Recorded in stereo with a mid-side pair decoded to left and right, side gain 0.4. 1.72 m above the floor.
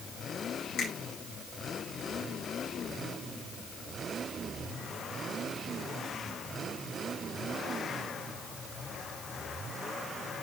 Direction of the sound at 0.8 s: 70° left.